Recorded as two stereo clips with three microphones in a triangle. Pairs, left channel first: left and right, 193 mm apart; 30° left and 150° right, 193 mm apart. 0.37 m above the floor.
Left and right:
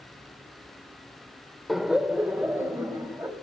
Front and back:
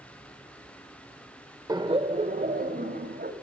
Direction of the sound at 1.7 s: Straight behind.